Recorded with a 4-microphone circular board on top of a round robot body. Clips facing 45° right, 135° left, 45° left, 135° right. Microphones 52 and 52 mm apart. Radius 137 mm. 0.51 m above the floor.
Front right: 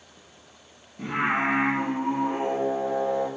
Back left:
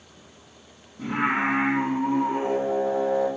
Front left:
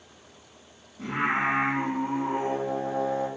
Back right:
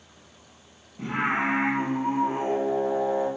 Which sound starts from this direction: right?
Singing, at 1.0 s.